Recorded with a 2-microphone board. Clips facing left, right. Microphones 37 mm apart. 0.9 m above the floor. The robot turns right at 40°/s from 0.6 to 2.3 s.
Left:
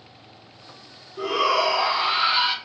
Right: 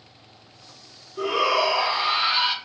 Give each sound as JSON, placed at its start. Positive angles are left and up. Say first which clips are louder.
{"t": 1.2, "sound": "a shout", "louder": "even", "side_deg": -10, "distance_m": 0.6}